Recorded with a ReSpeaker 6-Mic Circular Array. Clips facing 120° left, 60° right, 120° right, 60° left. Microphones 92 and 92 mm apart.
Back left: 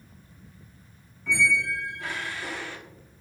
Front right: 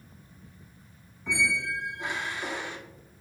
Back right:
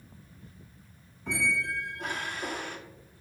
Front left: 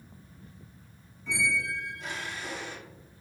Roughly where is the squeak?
Behind right.